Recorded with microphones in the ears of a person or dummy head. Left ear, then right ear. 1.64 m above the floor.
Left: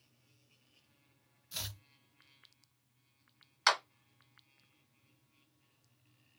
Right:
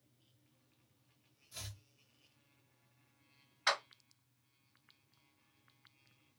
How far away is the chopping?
About 0.5 m.